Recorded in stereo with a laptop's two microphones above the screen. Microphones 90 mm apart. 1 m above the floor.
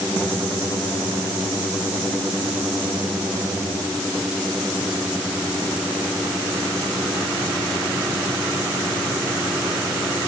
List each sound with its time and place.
Only background noise.